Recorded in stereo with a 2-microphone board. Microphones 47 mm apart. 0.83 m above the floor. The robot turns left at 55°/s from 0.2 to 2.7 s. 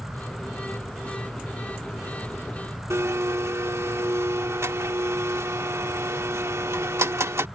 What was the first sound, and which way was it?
A blender, 75° right (ahead or behind).